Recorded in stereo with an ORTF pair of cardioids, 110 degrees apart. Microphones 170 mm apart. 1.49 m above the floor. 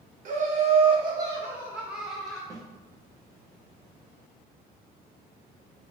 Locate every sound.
0.2 s laughter: 50° right, 1.5 m; by 2.4 s 5° left, 2 m
2.5 s a snare drum: 20° right, 1.2 m